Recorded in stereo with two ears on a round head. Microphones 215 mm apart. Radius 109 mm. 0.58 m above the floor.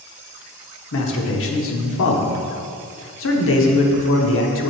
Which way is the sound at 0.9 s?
55° left (ahead or behind).